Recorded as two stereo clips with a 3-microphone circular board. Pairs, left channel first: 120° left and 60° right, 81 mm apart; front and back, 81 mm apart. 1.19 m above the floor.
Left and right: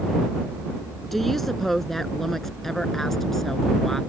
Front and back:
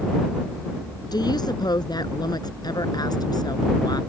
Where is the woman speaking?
30° left; by 4.0 s 35° left.